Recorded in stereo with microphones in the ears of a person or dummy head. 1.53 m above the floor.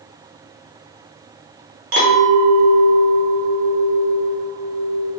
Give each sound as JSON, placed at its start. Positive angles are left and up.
{"t": 1.9, "sound": "a clink", "side_deg": -45, "distance_m": 0.9}